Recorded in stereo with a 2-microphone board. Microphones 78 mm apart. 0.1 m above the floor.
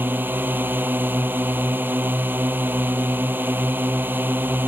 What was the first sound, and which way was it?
A drone, 25° right (ahead or behind).